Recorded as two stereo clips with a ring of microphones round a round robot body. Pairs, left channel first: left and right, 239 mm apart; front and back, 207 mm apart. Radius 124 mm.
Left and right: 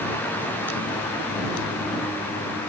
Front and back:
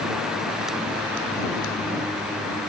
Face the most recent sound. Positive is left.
No sound to turn to.